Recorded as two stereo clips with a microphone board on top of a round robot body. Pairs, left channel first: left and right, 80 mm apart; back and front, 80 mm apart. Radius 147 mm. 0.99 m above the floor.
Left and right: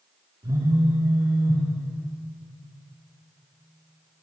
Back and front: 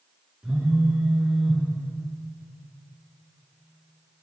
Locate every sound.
0.4 s a phone buzzing: 80° right, 1.7 m